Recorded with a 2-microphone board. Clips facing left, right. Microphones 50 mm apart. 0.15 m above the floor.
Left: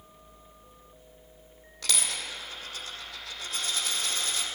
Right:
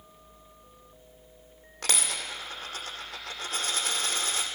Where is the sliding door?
No sliding door in this recording.